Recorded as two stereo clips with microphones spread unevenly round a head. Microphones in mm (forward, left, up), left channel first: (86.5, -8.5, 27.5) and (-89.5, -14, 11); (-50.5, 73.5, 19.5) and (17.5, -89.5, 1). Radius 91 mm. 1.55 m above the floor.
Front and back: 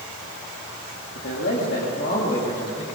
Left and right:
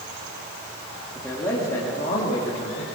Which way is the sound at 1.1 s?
30° left.